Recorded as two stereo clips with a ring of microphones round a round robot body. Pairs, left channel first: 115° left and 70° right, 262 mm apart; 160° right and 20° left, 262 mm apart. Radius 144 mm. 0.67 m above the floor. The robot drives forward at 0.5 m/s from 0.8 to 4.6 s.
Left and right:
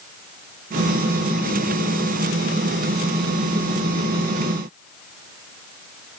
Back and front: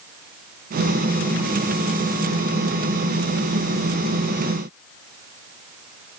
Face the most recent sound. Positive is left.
No sound to turn to.